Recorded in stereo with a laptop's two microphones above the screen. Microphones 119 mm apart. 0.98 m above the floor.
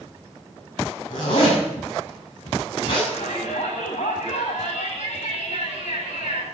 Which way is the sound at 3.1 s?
65° left (ahead or behind).